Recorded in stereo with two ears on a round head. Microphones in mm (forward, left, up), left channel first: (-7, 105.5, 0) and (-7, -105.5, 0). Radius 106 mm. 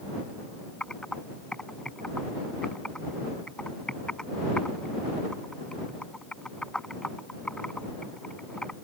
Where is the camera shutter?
No camera shutter in this recording.